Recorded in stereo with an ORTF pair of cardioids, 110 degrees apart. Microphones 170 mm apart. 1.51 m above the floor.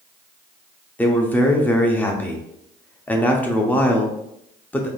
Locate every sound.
1.0 s a man speaking: 10° left, 0.7 m